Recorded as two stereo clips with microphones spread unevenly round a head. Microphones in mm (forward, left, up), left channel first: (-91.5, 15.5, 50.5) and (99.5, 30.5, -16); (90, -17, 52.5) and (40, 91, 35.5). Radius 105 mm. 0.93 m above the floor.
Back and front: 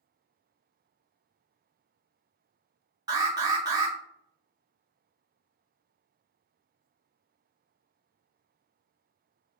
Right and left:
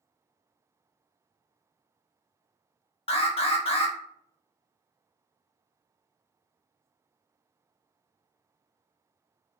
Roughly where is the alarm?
Ahead right.